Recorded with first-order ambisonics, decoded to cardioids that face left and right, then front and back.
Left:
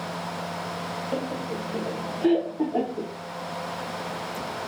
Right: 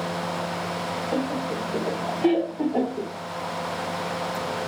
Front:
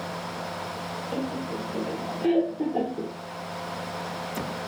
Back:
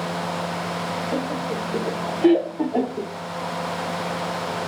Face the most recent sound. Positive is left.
turn(degrees=-170)